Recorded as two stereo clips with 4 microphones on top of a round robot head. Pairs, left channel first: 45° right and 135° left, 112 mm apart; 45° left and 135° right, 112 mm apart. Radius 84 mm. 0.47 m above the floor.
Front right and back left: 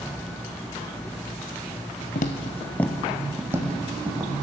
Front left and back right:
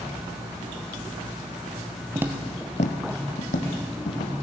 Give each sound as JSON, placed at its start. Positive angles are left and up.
{"t": 2.1, "sound": "footsteps", "azimuth_deg": -65, "distance_m": 0.8}